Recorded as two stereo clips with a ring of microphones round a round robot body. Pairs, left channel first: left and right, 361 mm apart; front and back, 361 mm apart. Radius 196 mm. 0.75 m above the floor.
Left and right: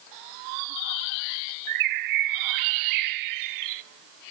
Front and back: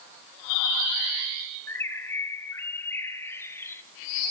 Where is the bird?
85° right, 1.0 m.